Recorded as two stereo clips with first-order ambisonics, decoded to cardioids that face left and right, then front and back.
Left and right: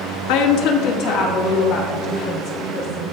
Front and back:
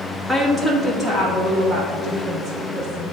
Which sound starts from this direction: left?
A woman speaking, at 0.3 s.